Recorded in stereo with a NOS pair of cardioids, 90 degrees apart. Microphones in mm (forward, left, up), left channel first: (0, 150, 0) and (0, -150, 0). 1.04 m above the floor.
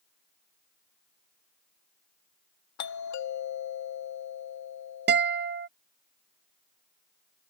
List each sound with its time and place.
2.8 s a doorbell: 70° left
5.1 s a guitar: 35° right